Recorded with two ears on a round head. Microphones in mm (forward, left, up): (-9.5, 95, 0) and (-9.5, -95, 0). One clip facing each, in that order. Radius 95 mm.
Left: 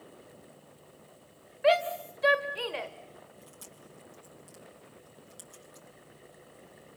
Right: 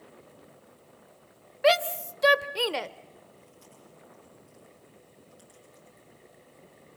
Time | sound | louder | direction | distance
1.6 | a shout | right 2 dB | 60° right (ahead or behind) | 1.2 m
3.4 | chewing | left 1 dB | 70° left (ahead or behind) | 8.5 m